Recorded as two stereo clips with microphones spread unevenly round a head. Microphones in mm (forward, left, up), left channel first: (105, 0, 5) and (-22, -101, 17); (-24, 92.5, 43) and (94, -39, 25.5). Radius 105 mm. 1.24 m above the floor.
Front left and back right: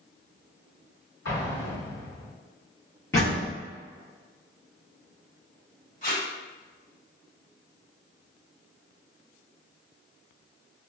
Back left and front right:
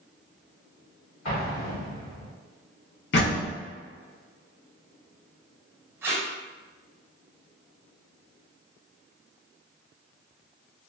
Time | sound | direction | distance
1.2 | an explosion | 85° left | 1.5 m
3.1 | a door slam | 115° left | 0.8 m
6.0 | tape being pulled | 30° left | 1.3 m